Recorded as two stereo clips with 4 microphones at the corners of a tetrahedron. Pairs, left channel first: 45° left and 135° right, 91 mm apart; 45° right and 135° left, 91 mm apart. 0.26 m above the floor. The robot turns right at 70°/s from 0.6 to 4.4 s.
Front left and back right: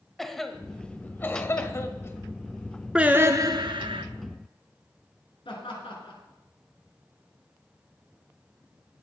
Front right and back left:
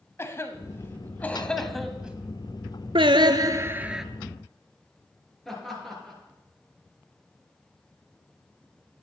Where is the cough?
40° right, 1.1 m; by 2.2 s 70° left, 1.1 m.